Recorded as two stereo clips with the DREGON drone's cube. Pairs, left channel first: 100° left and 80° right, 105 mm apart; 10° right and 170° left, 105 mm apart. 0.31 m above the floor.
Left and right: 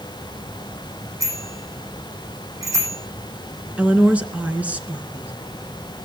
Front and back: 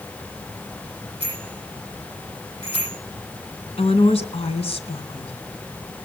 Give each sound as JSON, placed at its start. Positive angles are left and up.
{"t": 1.2, "sound": "a bicycle bell", "azimuth_deg": -20, "distance_m": 9.0}
{"t": 3.8, "sound": "a woman speaking", "azimuth_deg": 0, "distance_m": 3.0}